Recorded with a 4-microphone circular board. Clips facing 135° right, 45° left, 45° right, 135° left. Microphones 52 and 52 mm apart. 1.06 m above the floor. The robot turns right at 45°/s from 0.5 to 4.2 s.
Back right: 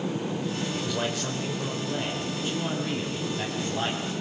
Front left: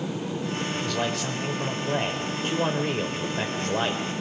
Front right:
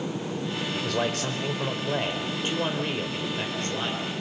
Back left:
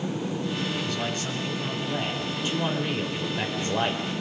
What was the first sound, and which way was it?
A man speaking, 65° right.